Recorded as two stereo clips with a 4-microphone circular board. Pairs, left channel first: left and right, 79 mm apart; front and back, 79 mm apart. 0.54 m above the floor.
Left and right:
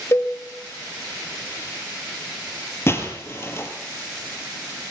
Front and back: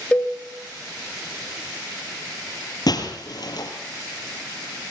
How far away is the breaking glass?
About 4.5 m.